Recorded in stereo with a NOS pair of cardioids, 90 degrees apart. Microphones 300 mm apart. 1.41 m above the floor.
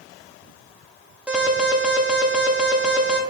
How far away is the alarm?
About 2.5 m.